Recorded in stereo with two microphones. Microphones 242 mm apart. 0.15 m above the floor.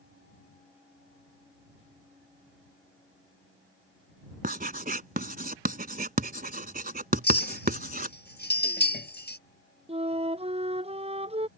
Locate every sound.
4.4 s writing: 35° right (ahead or behind)
7.2 s a clink: 45° left (ahead or behind)
9.9 s a flute: 25° right (ahead or behind)